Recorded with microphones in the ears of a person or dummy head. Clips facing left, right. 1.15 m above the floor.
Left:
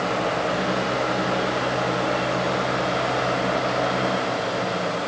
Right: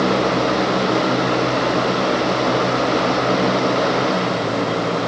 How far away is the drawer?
I don't hear a drawer.